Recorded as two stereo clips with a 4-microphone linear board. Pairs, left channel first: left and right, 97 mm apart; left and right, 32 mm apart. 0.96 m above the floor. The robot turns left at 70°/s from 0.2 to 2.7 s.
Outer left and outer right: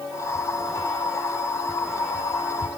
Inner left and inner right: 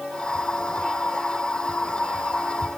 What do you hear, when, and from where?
Only background noise.